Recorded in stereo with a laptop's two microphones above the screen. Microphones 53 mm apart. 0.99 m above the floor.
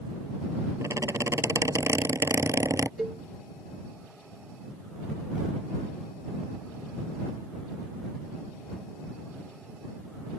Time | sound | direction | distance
0.8 | a squeak | 65° right (ahead or behind) | ?
3.0 | a cowbell | 20° right (ahead or behind) | ?